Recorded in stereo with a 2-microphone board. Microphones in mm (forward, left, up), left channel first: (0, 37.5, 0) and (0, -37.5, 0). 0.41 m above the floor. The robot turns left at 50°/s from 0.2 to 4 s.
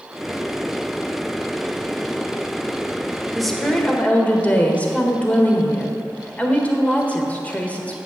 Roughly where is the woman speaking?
Behind.